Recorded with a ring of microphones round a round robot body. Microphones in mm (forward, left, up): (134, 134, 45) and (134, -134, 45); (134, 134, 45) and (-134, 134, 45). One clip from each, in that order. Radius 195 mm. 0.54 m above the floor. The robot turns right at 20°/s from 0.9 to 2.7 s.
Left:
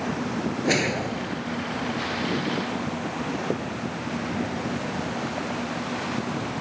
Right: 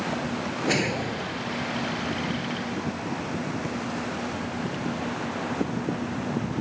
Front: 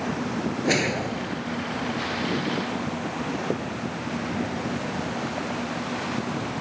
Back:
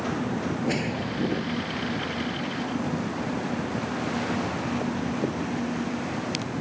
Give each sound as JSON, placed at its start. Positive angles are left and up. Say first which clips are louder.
{"t": 0.6, "sound": "a whoosh", "louder": "left 2 dB, front 8 dB", "azimuth_deg": 25}